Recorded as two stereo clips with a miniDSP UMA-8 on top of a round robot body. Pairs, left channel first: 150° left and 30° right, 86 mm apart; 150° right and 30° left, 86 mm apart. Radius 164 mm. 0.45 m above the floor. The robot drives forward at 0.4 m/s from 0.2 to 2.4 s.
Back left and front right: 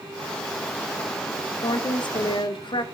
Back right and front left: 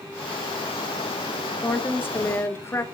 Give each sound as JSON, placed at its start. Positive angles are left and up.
{"t": 1.6, "sound": "a woman speaking", "azimuth_deg": 140, "distance_m": 1.1}